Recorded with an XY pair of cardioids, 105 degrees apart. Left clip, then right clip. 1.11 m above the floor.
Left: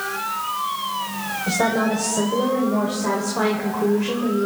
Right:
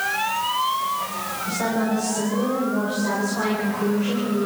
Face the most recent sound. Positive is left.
turn(degrees=30)